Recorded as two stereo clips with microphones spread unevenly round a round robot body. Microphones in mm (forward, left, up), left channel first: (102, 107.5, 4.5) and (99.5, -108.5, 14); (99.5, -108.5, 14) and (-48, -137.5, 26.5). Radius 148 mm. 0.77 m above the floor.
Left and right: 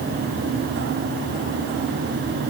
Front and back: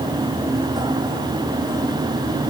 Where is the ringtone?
I don't hear a ringtone.